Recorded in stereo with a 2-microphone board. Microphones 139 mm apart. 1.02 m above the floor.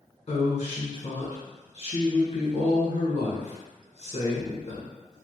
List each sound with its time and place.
0.3 s a woman speaking: 45° left (ahead or behind), 1.0 m